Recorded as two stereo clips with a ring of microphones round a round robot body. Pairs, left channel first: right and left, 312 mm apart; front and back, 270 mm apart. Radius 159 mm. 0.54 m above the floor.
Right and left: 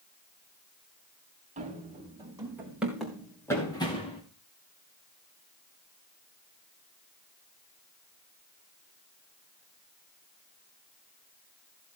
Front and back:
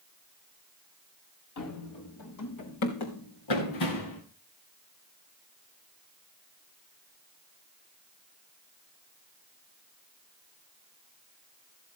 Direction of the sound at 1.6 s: 20° left.